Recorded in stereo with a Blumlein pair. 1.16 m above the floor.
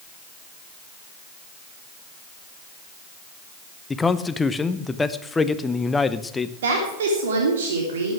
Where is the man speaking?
10° left, 0.8 m.